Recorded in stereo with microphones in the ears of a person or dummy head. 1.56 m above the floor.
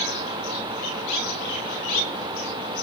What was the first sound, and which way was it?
Only background noise.